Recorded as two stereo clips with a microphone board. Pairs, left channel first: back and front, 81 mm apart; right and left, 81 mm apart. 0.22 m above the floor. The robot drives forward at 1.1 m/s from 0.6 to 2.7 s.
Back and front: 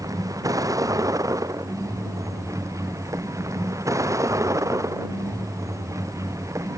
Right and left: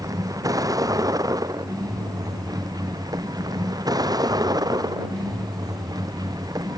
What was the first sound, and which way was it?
A vehicle, 45° left.